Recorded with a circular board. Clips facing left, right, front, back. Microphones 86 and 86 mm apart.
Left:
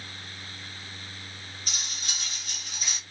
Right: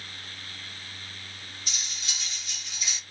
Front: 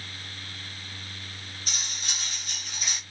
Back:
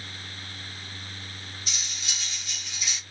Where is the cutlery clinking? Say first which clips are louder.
Left 1 dB, front 3 dB; 45° left, 0.9 m.